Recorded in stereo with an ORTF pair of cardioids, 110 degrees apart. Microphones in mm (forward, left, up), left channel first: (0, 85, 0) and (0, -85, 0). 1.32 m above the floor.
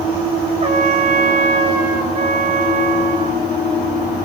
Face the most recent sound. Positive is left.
turn(degrees=-40)